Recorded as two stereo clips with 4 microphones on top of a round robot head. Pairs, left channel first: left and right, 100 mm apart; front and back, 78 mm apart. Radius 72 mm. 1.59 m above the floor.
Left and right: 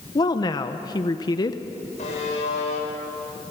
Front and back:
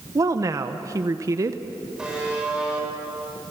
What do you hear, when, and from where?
0.1 s a woman speaking: 135° left, 0.8 m
2.0 s a buzzer: 95° left, 7 m